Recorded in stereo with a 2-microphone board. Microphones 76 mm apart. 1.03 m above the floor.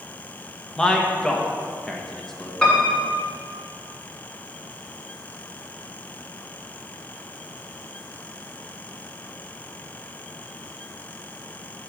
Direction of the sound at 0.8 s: 10° left (ahead or behind).